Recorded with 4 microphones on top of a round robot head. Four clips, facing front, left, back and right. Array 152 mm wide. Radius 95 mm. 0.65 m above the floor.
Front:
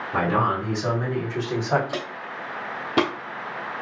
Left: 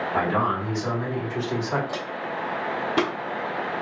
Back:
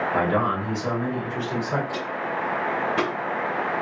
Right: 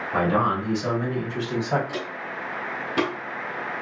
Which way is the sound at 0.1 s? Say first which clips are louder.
Right 3 dB, front 3 dB; 45° right.